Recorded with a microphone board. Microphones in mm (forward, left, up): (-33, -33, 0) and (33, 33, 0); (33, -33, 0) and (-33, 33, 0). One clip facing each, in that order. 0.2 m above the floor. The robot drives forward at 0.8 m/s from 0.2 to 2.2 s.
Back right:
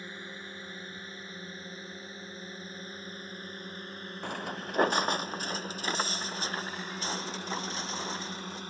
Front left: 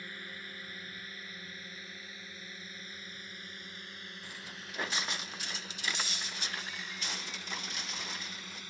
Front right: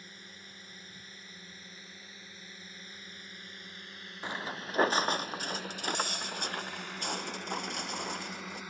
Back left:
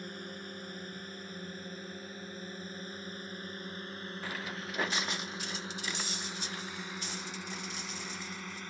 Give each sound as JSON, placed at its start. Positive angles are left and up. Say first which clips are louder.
{"t": 0.0, "sound": "a drone", "louder": "back right 3 dB, back left 10 dB", "azimuth_deg": 160}
{"t": 4.2, "sound": "footsteps", "louder": "back right 15 dB, front right 4 dB", "azimuth_deg": -110}